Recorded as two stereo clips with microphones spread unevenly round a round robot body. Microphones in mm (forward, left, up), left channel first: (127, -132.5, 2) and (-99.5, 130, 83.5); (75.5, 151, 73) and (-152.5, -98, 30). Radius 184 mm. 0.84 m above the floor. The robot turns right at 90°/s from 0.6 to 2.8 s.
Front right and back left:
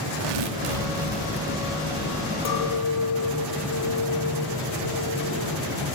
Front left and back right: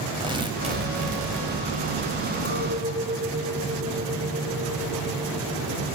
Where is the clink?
25° right, 2.5 m; by 5.8 s 10° left, 2.5 m.